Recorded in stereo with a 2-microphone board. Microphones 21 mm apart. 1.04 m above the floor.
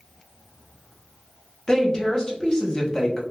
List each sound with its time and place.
1.7 s a woman speaking: 30° left (ahead or behind), 0.9 m